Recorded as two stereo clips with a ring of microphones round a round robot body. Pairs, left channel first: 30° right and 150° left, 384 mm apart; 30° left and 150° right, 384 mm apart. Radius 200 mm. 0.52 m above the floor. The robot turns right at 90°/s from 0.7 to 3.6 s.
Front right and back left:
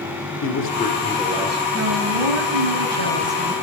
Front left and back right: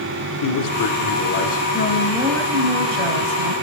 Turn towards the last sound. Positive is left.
turn(degrees=-105)